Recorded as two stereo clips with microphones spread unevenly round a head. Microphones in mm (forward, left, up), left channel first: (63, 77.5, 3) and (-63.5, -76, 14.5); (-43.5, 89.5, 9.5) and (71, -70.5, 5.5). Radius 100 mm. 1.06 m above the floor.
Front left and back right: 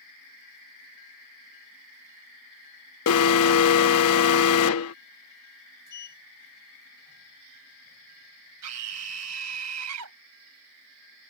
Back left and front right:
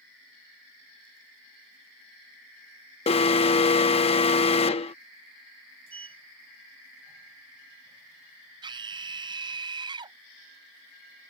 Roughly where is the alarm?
Ahead left.